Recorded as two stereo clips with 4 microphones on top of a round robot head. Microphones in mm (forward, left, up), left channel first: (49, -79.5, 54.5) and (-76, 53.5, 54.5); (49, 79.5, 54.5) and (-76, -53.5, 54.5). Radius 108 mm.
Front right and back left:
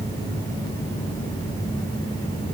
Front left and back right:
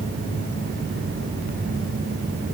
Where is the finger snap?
No finger snap in this recording.